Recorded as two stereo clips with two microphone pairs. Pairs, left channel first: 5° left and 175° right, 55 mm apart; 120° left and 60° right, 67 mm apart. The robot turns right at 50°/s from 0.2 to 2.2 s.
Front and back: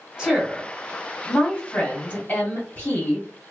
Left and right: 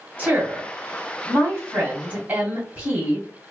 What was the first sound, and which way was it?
A woman speaking, 105° right.